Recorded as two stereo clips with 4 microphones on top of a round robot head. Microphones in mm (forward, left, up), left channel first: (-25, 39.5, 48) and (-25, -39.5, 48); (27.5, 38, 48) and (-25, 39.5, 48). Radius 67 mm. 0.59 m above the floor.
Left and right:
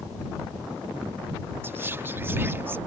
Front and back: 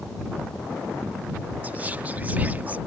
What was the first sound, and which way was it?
Whispering, 140° right.